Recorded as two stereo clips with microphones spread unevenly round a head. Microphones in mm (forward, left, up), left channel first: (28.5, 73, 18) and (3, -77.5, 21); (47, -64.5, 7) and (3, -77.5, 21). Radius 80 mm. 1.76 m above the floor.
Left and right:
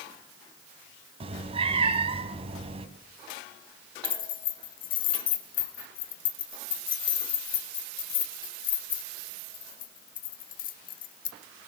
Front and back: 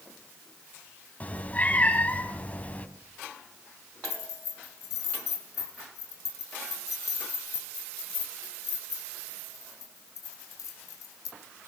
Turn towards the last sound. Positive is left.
turn(degrees=50)